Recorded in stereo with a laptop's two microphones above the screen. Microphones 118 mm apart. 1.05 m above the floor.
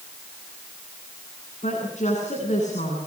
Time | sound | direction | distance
1.6 | a woman speaking | 70° left (ahead or behind) | 10 m